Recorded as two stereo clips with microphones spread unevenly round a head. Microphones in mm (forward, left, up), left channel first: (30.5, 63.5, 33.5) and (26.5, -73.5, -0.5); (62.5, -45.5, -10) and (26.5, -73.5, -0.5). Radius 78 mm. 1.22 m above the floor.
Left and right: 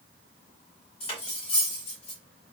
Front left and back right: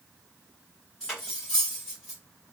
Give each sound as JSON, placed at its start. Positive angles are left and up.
{"t": 1.0, "sound": "cutlery clinking", "azimuth_deg": 130, "distance_m": 1.0}